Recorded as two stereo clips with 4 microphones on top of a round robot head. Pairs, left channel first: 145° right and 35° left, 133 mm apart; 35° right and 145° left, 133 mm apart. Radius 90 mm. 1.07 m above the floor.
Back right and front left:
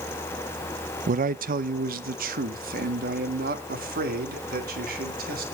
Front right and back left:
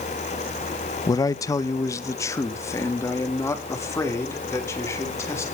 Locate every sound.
1.1 s a man speaking: 25° left, 0.7 m; by 5.5 s 35° left, 4 m